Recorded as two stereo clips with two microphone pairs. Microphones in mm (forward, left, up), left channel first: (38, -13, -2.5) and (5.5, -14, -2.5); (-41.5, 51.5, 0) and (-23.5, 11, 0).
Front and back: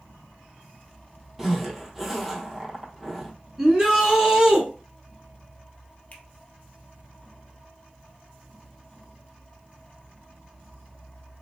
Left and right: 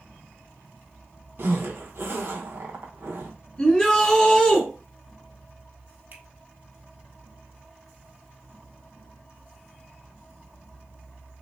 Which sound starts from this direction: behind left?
A shout, at 3.6 s.